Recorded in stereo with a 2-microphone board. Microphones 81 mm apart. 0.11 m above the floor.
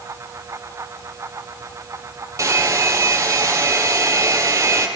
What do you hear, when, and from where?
2.4 s a hair dryer: 40° right (ahead or behind), 2.5 m